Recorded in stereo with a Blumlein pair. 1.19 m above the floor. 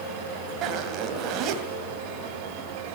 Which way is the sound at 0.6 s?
35° right.